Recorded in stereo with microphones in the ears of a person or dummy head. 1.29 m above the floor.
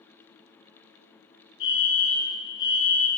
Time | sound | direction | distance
1.6 | a fire alarm | 55° left (ahead or behind) | 1.3 m